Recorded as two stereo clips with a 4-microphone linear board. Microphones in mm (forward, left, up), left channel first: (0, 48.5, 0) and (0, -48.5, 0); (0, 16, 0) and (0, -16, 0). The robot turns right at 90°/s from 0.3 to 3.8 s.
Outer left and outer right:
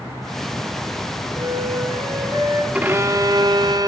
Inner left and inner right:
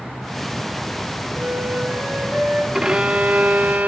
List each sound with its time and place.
1.4 s a flute: 130° right, 5 m; by 2.6 s 15° right, 5 m
2.7 s a violin: 160° right, 0.6 m; by 3.9 s 65° right, 0.6 m